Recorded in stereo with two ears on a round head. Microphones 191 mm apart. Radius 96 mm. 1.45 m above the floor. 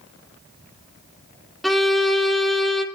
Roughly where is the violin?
Centre.